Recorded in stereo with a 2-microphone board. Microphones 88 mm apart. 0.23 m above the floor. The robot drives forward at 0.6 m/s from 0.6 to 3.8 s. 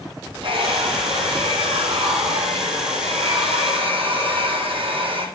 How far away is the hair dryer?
About 7 m.